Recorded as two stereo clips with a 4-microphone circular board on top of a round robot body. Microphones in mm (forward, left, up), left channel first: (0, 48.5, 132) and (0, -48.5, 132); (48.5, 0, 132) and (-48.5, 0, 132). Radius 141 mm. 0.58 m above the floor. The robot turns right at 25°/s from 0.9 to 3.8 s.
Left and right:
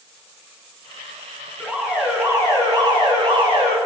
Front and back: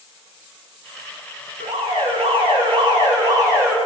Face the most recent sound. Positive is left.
turn(degrees=-115)